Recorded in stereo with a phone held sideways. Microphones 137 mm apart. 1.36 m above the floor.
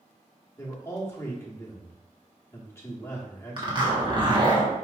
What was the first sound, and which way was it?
A man speaking, 20° left (ahead or behind).